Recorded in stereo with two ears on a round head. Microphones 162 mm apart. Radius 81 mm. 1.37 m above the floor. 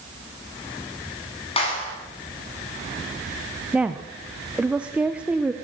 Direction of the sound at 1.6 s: 35° left (ahead or behind).